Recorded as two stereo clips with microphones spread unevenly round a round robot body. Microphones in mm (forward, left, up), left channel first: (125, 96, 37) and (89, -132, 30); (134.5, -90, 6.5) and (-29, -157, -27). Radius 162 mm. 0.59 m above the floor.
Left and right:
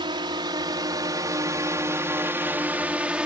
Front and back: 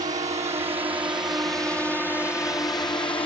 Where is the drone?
155° right; by 3.3 s 20° right.